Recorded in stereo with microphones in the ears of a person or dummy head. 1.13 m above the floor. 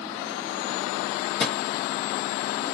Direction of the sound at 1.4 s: 5° left (ahead or behind).